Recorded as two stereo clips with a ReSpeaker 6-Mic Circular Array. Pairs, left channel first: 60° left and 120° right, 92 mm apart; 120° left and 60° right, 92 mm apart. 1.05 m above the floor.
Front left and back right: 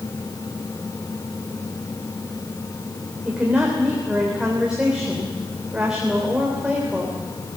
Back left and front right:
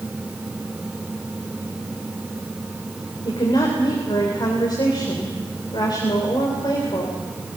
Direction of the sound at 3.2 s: 160° left.